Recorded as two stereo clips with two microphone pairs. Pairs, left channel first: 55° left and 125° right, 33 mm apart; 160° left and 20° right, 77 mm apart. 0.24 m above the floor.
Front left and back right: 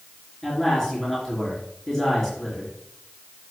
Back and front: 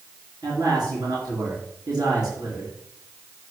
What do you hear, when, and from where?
0.4 s a man speaking: 25° right, 4 m